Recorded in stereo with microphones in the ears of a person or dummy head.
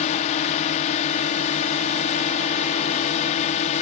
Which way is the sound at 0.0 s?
40° left (ahead or behind).